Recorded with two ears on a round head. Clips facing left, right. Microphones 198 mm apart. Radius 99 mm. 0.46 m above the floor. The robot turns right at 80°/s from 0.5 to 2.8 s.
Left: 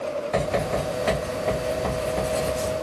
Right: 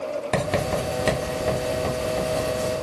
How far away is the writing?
About 1.2 m.